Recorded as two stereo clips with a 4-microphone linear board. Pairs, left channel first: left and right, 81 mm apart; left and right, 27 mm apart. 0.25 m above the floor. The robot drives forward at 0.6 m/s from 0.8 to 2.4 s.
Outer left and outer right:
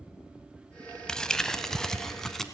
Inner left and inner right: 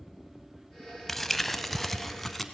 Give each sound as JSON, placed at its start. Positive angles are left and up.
{"t": 1.1, "sound": "crumpling", "side_deg": 10, "distance_m": 0.8}